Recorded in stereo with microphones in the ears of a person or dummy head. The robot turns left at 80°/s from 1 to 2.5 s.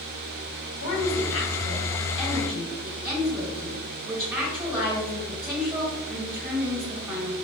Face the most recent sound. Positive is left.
turn(degrees=-10)